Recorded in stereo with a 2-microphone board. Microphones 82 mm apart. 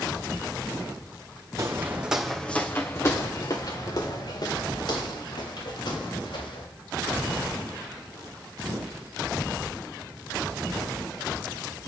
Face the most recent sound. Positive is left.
turn(degrees=70)  # may be behind; listen again after turning